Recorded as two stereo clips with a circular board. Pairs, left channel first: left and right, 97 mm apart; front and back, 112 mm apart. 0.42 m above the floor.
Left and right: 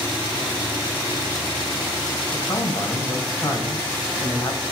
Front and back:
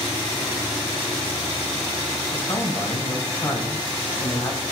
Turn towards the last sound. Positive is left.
turn(degrees=50)